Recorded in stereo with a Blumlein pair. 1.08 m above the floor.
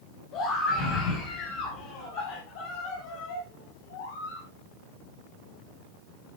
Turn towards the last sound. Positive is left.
turn(degrees=55)